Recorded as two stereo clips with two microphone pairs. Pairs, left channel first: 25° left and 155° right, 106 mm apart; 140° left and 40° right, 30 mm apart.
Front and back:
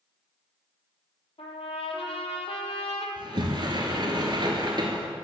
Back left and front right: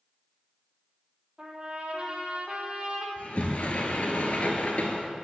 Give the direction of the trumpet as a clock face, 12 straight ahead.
12 o'clock.